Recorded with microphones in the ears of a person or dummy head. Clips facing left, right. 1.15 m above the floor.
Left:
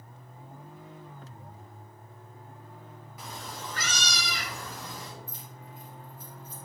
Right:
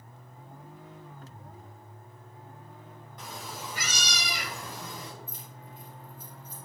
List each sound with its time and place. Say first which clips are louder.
3.2 s a cat meowing: even; centre (ahead or behind), 1.3 m; by 5.1 s 30° right (ahead or behind), 2 m
5.3 s keys jangling: left 1 dB; 50° right (ahead or behind), 3.5 m